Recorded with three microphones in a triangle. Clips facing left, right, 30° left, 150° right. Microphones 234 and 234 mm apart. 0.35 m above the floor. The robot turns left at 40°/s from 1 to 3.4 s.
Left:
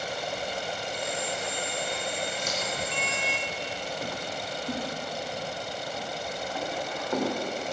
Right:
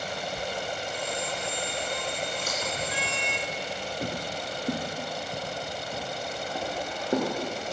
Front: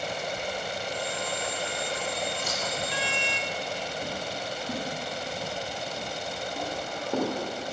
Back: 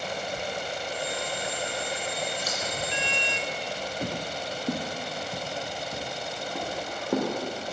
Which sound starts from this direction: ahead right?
Scissors, at 2.4 s.